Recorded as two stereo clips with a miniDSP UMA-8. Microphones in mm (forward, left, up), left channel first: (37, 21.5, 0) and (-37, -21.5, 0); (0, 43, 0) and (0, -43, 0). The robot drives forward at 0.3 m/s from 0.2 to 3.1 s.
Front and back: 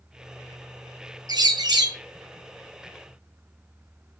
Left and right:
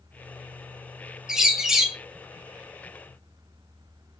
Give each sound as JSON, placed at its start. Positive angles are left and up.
{"t": 1.3, "sound": "a bird", "azimuth_deg": -170, "distance_m": 0.7}